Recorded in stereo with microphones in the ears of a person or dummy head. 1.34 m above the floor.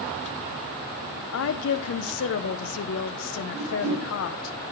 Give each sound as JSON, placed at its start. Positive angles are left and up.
{"t": 1.3, "sound": "a woman speaking", "side_deg": 85, "distance_m": 0.5}
{"t": 3.5, "sound": "a whoosh", "side_deg": -55, "distance_m": 6.0}